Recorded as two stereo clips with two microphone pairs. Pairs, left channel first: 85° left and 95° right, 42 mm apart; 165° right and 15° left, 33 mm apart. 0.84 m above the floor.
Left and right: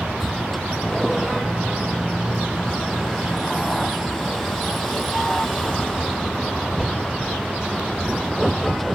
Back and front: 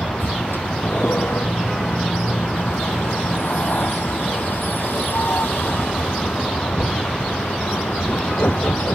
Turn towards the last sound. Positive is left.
turn(degrees=170)